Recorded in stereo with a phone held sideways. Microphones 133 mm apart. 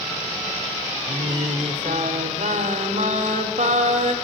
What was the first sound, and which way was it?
Singing, 70° right (ahead or behind).